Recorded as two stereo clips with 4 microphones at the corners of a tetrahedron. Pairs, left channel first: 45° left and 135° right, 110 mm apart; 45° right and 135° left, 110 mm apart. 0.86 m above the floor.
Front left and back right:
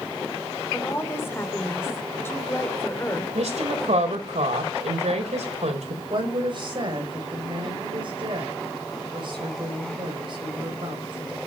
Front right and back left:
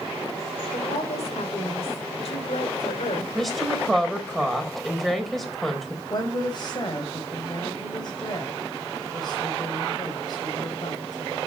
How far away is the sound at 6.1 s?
About 5.5 m.